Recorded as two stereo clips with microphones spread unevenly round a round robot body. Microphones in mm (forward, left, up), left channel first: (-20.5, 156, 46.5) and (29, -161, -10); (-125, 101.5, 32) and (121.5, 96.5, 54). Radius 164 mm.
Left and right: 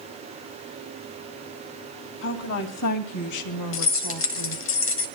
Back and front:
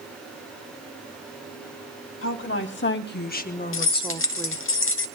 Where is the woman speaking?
150° left, 3.5 m; by 4.6 s 85° left, 1.7 m.